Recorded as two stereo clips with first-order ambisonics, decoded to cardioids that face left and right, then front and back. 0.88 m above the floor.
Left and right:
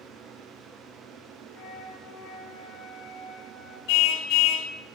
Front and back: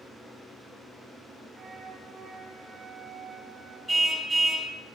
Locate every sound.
1.5 s a flute: 115° left, 8 m
3.9 s a car horn: 95° left, 3 m